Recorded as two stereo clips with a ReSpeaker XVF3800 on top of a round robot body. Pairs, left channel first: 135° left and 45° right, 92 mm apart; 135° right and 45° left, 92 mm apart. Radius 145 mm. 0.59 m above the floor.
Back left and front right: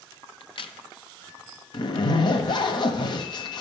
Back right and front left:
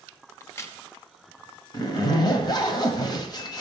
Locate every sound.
0.4 s a crack: 165° left, 1.0 m
1.7 s a zipper: 175° left, 1.2 m